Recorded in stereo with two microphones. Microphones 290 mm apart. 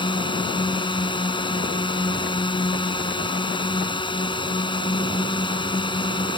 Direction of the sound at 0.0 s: 15° left (ahead or behind).